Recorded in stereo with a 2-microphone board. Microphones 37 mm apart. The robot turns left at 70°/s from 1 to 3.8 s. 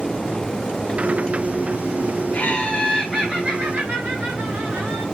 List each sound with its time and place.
2.3 s laughter: 45° left, 2 m; by 5.0 s 55° right, 2 m